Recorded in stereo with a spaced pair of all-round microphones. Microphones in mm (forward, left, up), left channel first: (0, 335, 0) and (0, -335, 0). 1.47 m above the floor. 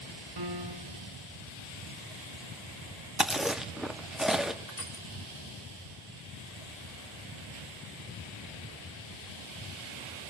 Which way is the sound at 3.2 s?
Centre (ahead or behind).